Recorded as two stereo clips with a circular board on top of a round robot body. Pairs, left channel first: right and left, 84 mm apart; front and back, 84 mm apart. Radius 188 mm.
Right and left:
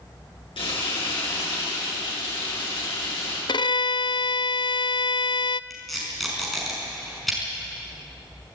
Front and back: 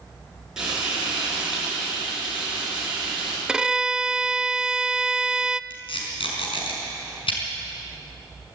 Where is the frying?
100° right, 8.5 m.